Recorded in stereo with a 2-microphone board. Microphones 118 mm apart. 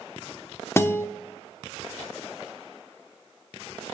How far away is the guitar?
About 1.0 m.